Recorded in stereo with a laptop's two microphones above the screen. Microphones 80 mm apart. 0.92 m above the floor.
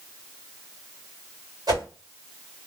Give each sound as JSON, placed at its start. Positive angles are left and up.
{"t": 1.7, "sound": "a whoosh", "side_deg": -55, "distance_m": 2.5}